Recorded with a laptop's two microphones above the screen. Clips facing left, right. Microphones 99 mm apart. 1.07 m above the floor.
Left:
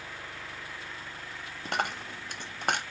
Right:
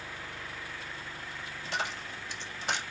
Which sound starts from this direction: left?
A dropped coin, at 1.6 s.